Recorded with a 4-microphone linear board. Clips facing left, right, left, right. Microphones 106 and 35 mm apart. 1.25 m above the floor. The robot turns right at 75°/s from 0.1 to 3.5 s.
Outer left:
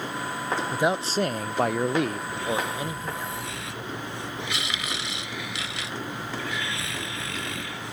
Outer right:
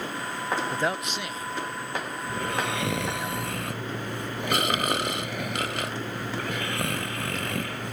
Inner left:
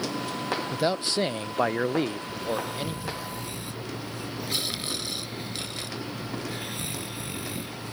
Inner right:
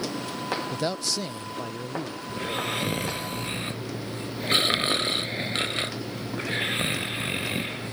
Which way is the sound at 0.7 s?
5° left.